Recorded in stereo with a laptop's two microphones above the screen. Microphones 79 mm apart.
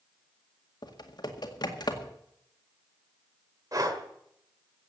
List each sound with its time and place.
0.8 s typing on a keyboard: 60° left (ahead or behind), 1.9 m
3.7 s breathing: 50° right (ahead or behind), 1.5 m